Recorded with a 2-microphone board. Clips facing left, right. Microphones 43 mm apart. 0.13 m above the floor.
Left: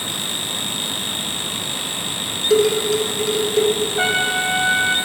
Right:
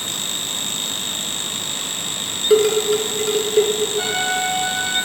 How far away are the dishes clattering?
About 0.9 m.